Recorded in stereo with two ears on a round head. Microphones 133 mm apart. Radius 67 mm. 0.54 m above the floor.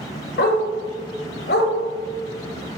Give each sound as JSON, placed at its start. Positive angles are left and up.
{"t": 0.4, "sound": "a dog barking", "side_deg": 75, "distance_m": 1.1}